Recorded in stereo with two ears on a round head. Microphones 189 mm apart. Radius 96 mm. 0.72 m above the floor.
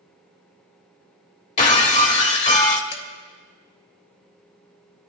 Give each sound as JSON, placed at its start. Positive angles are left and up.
{"t": 1.6, "sound": "breaking glass", "side_deg": 35, "distance_m": 1.2}
{"t": 2.9, "sound": "dishes clattering", "side_deg": 60, "distance_m": 1.6}